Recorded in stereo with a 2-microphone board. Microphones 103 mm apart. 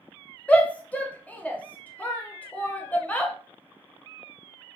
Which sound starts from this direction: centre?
A shout, at 0.5 s.